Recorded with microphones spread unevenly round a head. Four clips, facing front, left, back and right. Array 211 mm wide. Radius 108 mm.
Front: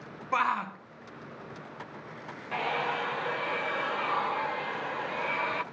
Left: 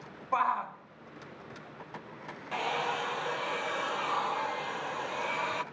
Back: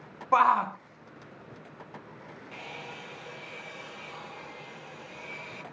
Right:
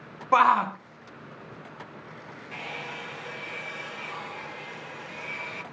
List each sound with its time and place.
0.3 s a shout: 85° right, 0.7 m
2.5 s a hair dryer: 20° left, 1.1 m